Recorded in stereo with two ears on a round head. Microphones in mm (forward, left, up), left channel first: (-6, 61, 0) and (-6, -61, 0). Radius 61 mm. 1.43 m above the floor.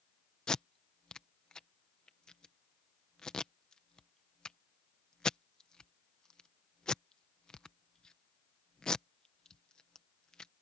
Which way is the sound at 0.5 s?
5° left (ahead or behind).